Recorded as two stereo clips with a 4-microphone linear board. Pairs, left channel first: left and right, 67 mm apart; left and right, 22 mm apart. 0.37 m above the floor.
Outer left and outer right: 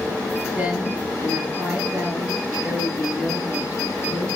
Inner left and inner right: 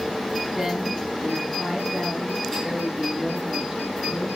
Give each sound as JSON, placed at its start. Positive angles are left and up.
{"t": 0.5, "sound": "a woman speaking", "side_deg": -20, "distance_m": 7.0}